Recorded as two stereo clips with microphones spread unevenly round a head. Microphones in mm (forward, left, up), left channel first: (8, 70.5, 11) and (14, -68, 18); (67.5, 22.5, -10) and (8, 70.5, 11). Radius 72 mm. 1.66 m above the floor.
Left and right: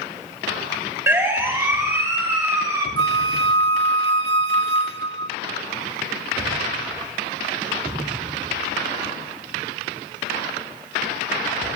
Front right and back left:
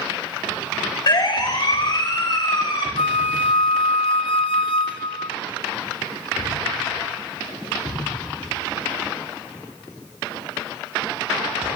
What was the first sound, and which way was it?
A siren, 15° right.